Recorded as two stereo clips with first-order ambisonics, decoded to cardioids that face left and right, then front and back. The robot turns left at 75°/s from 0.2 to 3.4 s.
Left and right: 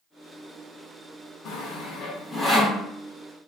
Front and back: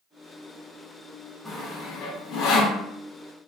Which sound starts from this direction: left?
Sawing, at 1.4 s.